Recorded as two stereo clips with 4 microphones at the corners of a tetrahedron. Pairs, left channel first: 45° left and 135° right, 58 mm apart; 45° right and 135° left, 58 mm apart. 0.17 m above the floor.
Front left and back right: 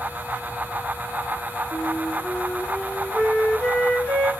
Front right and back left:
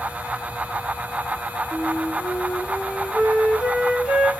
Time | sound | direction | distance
1.7 | a flute | 75° left | 1.3 m